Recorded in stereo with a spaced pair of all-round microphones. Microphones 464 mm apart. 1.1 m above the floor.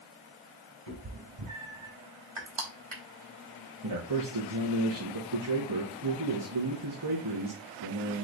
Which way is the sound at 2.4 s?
70° right (ahead or behind).